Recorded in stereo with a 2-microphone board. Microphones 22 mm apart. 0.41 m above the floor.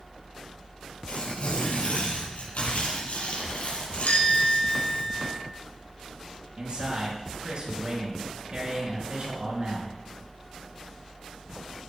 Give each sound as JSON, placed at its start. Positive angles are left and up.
{"t": 1.1, "sound": "tearing paper", "side_deg": 70, "distance_m": 5.5}
{"t": 4.1, "sound": "a bell", "side_deg": 85, "distance_m": 3.5}
{"t": 6.6, "sound": "a man speaking", "side_deg": -45, "distance_m": 7.0}